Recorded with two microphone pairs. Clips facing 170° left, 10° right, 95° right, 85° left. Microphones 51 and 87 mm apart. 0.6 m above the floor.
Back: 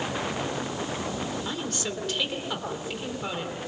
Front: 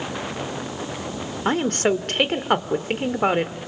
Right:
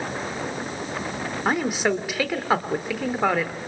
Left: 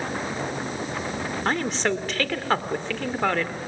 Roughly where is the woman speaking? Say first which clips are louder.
Front 11 dB, right 3 dB; ahead.